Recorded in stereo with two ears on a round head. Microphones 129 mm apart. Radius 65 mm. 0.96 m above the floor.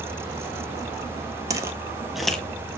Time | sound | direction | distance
1.5 | footsteps | 25° right (ahead or behind) | 1.0 m